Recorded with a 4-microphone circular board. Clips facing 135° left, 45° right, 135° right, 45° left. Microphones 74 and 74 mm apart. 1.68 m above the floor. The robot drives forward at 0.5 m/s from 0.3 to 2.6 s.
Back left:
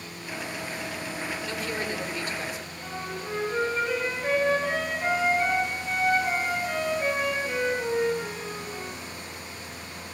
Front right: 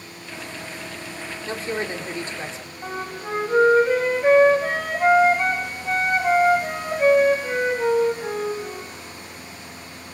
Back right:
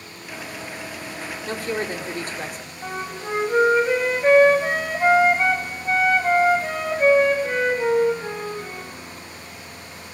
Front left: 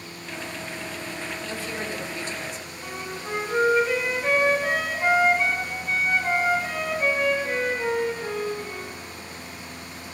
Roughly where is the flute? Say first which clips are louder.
Front right 5 dB, back right 5 dB; right.